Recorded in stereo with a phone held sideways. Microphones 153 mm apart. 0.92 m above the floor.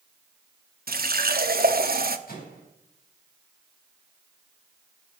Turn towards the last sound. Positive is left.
turn(degrees=70)  # may be behind; listen again after turning